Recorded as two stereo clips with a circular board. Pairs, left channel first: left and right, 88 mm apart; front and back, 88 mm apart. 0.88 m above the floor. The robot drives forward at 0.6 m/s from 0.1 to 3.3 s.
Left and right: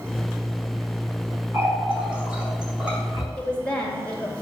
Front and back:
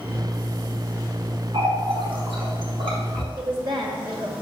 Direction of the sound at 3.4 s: 165° left.